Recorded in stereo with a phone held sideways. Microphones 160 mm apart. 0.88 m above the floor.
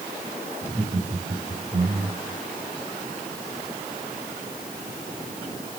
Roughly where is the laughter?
Right.